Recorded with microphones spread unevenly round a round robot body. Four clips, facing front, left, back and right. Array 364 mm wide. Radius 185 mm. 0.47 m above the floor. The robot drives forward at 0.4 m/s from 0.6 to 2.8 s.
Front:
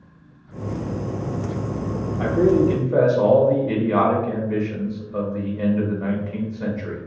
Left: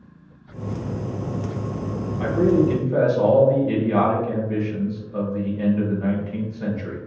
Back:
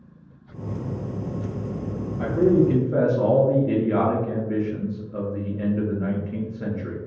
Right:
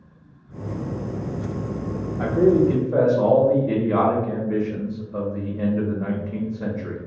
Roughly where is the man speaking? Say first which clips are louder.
Right 1 dB, front 1 dB; right.